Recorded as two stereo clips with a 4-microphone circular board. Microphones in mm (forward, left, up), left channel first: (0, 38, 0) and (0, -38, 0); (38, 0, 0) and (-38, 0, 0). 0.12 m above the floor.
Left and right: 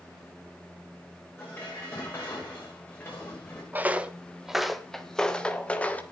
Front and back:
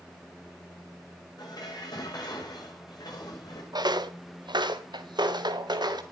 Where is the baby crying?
I don't hear a baby crying.